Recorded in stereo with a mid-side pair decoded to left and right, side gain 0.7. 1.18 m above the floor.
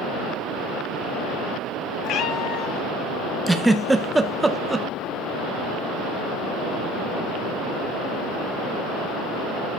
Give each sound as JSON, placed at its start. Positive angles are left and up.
{"t": 2.0, "sound": "a cat meowing", "azimuth_deg": 50, "distance_m": 1.1}
{"t": 3.5, "sound": "a giggle", "azimuth_deg": -10, "distance_m": 0.9}